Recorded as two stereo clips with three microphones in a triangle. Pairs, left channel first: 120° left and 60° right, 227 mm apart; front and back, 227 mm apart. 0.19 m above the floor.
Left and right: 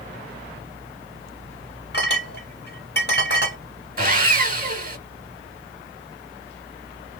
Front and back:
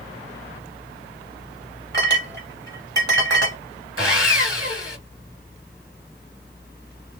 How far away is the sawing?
About 1.1 m.